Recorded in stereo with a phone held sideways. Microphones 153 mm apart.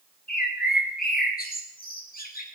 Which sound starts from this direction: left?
A bird, at 0.3 s.